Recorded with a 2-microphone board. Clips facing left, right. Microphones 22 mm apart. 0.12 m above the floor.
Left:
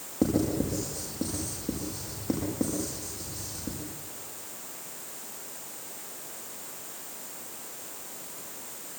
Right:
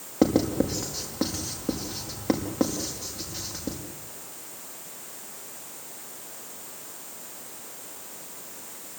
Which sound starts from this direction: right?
Writing, at 0.2 s.